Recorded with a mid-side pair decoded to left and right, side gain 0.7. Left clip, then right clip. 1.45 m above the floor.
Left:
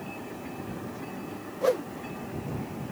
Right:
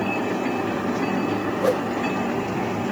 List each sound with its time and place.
1.6 s a whoosh: 10° right